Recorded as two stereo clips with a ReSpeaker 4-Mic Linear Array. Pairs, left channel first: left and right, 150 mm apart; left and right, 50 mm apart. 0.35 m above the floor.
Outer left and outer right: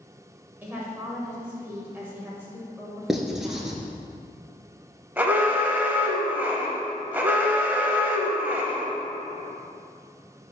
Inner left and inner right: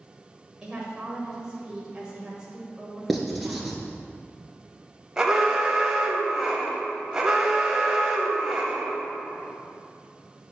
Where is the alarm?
10° right (ahead or behind), 1.0 m.